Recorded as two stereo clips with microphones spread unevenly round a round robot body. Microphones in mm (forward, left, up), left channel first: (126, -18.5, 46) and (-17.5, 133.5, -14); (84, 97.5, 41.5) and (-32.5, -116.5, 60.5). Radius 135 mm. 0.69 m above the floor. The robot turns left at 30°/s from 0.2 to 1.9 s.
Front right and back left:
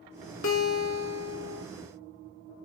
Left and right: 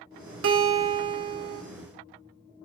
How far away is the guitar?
About 1.7 m.